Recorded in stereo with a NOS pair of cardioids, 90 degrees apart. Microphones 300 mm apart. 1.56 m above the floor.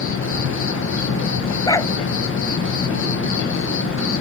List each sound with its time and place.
0.0 s an insect: 45° left
1.7 s a dog barking: 10° left